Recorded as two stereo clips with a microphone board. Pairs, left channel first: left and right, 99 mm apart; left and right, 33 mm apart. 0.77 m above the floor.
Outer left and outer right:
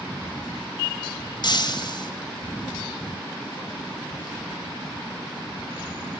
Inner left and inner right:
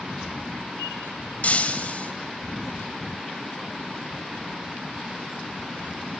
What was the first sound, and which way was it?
Breaking glass, 50° left (ahead or behind).